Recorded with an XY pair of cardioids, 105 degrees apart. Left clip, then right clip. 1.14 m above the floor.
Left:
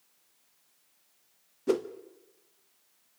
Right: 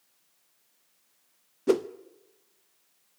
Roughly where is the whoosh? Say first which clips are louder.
Right 4 dB; ahead right.